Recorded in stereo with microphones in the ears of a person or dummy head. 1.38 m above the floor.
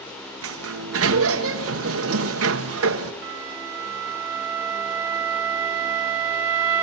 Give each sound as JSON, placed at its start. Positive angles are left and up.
{"t": 0.4, "sound": "a sliding door", "side_deg": -70, "distance_m": 1.2}
{"t": 3.2, "sound": "a flute", "side_deg": -10, "distance_m": 2.5}